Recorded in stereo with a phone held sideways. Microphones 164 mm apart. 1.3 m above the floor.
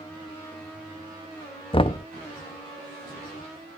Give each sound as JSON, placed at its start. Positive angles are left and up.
{"t": 1.7, "sound": "knocking", "side_deg": 35, "distance_m": 0.5}